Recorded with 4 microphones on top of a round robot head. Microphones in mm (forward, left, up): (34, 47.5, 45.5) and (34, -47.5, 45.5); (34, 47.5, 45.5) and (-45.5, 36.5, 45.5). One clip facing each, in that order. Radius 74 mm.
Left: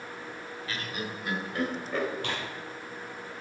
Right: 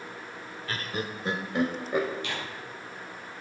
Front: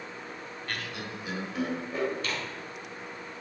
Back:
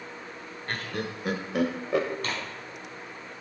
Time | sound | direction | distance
0.7 | laughter | 120° right | 1.2 m
2.2 | tearing paper | 135° left | 4 m